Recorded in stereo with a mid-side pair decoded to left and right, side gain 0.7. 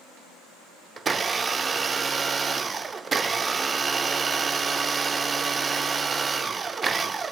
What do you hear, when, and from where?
1.0 s a blender: 25° right, 0.5 m